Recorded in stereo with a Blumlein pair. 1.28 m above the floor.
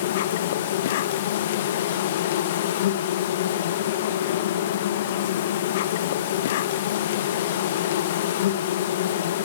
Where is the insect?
55° left, 1.3 m.